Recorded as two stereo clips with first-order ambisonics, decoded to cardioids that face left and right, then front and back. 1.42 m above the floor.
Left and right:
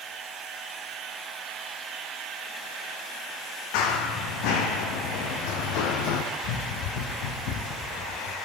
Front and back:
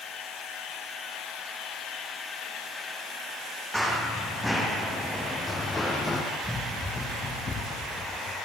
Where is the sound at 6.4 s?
85° left, 3.5 m; by 8.3 s 55° left, 4 m.